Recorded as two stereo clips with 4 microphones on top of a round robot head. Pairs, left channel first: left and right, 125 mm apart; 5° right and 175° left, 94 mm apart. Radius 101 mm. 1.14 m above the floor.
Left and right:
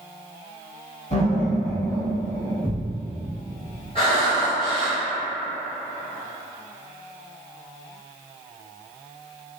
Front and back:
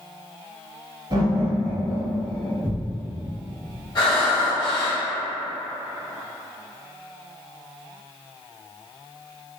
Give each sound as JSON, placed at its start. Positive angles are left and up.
{"t": 1.1, "sound": "laughter", "azimuth_deg": 125, "distance_m": 1.5}
{"t": 2.6, "sound": "a thud", "azimuth_deg": 135, "distance_m": 0.9}
{"t": 4.0, "sound": "breathing", "azimuth_deg": 30, "distance_m": 0.6}